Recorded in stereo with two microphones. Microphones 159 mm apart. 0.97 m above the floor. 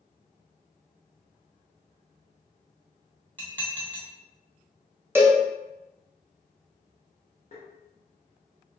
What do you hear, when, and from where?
3.4 s dishes clattering: 10° left (ahead or behind), 1.1 m
5.2 s a cowbell: 15° right (ahead or behind), 0.7 m
7.5 s tapping: 45° left (ahead or behind), 0.9 m